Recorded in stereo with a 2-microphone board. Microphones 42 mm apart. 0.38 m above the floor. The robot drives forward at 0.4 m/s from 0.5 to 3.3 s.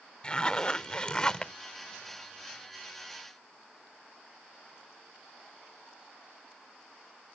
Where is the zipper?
25° left (ahead or behind); by 1.5 s 20° left (ahead or behind).